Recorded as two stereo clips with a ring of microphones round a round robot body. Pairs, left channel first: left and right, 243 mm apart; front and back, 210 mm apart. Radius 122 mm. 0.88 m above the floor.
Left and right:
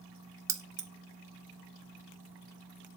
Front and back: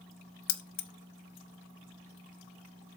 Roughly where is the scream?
No scream in this recording.